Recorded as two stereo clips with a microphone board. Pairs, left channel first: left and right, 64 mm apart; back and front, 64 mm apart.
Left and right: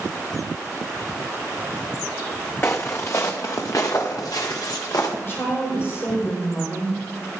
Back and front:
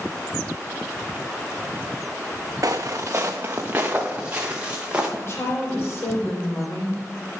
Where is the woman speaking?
135° left, 4 m.